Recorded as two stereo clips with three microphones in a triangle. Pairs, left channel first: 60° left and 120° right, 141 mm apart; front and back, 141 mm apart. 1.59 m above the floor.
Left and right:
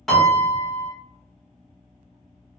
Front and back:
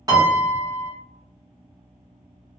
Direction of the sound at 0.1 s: 145° left.